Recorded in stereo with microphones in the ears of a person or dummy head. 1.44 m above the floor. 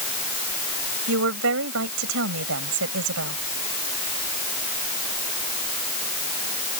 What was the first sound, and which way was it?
A woman speaking, 75° right (ahead or behind).